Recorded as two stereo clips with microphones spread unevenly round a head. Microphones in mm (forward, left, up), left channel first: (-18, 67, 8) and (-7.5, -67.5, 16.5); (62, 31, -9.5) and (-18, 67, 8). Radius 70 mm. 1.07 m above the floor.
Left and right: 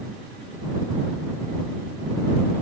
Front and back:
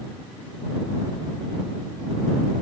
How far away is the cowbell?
I don't hear a cowbell.